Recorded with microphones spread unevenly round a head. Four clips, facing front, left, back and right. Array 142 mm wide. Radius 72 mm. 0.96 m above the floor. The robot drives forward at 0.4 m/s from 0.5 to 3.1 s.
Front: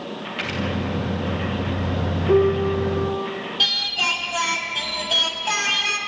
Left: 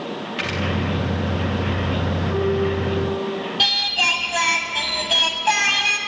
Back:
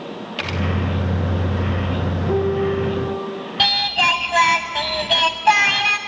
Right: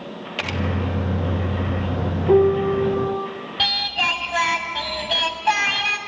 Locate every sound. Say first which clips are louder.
0.4 s a camera shutter: right 1 dB, back 2 dB; 120° right, 1.1 m
2.3 s a piano: right 7 dB, front 2 dB; 80° right, 1.5 m; by 3.3 s 95° right, 1.5 m
3.6 s singing: even, back 8 dB; 175° left, 1.2 m